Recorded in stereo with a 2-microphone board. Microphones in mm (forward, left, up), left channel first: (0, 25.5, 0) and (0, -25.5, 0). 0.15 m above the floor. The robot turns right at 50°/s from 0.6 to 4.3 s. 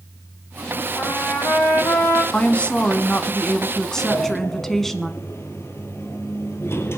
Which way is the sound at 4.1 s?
60° left (ahead or behind).